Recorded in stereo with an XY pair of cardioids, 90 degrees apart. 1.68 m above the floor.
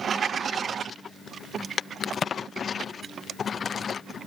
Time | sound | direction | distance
2.0 | a crack | 55° left | ?